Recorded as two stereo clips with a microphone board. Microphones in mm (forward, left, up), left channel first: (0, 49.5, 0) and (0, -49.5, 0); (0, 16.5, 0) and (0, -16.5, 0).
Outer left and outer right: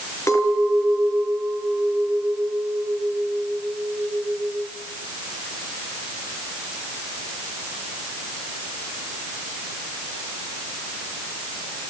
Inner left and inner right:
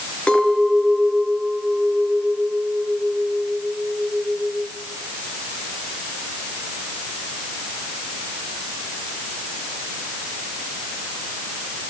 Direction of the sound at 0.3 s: 30° left (ahead or behind).